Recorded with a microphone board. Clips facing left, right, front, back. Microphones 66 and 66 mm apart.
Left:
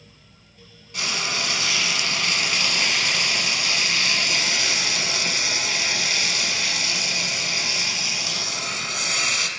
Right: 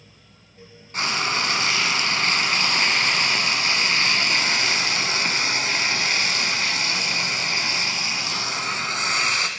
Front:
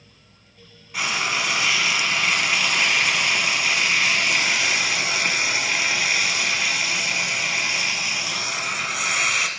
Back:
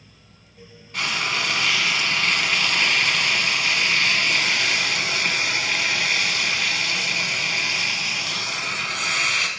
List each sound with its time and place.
0.9 s frying: 80° right, 1.0 m